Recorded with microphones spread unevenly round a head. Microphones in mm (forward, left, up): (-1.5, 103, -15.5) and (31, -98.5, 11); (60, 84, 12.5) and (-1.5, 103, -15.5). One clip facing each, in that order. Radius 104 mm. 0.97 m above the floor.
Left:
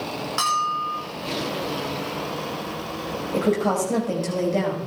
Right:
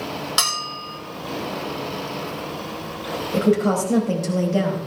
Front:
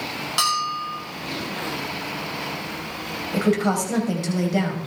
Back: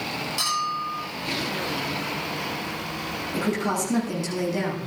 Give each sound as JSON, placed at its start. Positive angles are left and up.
{"t": 0.4, "sound": "a bell", "azimuth_deg": -45, "distance_m": 6.5}
{"t": 3.3, "sound": "a woman speaking", "azimuth_deg": 0, "distance_m": 4.5}